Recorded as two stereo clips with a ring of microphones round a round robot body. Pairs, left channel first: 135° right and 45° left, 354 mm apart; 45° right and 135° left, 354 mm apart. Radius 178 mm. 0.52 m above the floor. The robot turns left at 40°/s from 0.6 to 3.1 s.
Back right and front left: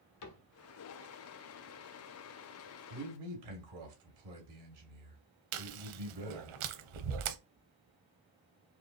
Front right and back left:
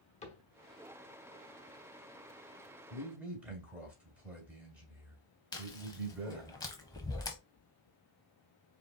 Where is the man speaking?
55° left, 2.5 m; by 6.5 s 50° left, 2.5 m.